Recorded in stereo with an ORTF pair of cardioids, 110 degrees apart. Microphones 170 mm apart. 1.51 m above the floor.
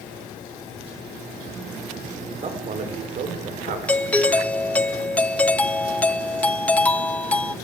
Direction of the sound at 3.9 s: 10° left.